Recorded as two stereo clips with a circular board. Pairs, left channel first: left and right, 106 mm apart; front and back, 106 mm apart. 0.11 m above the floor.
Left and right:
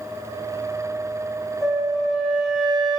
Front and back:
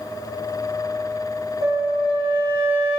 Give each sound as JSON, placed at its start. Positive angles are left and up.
{"t": 1.6, "sound": "a flute", "azimuth_deg": 175, "distance_m": 2.5}